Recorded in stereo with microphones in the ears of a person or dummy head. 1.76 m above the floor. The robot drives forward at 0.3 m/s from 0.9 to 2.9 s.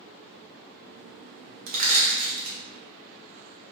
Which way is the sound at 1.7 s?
50° right (ahead or behind).